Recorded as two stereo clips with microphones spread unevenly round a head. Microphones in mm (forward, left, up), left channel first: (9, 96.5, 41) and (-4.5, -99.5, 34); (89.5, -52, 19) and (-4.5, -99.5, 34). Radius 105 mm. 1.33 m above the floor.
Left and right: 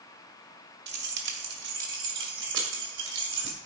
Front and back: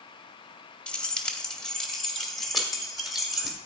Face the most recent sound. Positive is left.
turn(degrees=-65)